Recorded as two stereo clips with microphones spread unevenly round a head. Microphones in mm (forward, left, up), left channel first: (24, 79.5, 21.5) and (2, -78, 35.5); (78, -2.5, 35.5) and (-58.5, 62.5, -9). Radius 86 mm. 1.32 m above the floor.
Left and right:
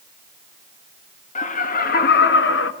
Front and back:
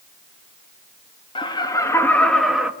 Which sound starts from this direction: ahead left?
Laughter, at 1.4 s.